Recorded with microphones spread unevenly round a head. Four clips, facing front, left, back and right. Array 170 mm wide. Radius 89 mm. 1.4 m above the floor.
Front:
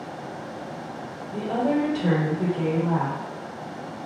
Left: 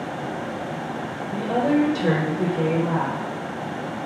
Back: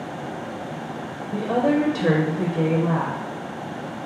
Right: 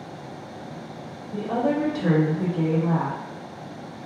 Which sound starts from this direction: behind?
A woman speaking, at 1.3 s.